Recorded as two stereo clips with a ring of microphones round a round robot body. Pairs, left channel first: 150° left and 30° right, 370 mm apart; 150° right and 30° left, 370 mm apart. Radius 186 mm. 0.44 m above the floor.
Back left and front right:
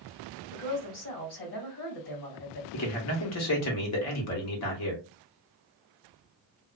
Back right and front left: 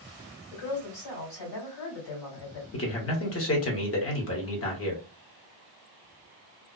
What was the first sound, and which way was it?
A woman speaking, 155° right.